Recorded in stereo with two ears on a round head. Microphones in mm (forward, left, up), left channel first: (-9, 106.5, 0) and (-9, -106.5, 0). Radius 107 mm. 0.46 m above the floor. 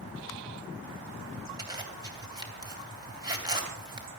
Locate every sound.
1.6 s a zipper: 20° right (ahead or behind), 3 m